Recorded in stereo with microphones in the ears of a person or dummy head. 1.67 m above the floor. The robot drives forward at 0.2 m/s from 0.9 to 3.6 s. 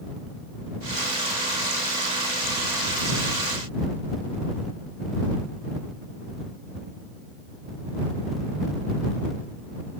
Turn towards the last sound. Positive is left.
No sound to turn to.